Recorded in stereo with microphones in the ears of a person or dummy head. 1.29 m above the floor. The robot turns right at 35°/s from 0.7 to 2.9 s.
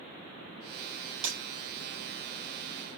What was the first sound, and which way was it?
Breaking glass, 45° right (ahead or behind).